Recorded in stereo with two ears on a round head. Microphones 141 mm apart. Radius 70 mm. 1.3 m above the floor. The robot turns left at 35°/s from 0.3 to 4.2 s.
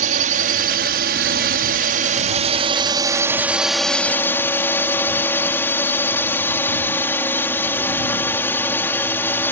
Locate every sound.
0.0 s a drone: 60° right; by 9.5 s 165° left